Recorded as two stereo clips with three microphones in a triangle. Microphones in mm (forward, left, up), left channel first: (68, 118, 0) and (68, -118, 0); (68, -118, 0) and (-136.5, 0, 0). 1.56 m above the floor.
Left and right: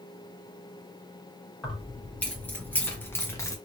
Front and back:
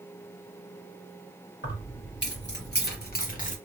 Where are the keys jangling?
5° left, 1.7 m; by 3.5 s 15° left, 0.7 m.